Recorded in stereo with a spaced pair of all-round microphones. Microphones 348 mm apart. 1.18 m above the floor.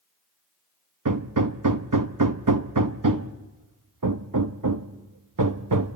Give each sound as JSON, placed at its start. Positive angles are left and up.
{"t": 1.1, "sound": "hammering", "side_deg": -65, "distance_m": 0.8}